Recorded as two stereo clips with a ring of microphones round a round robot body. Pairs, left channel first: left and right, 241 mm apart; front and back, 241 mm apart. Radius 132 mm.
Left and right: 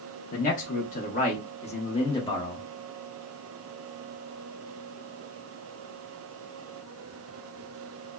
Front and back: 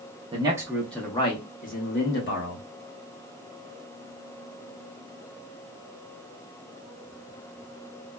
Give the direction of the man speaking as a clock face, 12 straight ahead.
8 o'clock.